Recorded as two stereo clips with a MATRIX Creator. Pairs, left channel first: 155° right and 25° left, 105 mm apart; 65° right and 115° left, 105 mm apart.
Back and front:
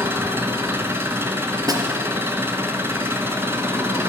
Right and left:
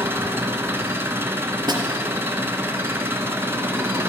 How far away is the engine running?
About 0.9 m.